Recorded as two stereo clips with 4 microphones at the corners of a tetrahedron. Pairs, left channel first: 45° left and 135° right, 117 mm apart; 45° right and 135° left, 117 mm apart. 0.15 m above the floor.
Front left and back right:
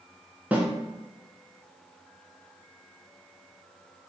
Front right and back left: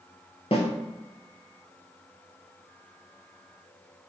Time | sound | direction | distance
0.5 | a snare drum | 60° right | 0.8 m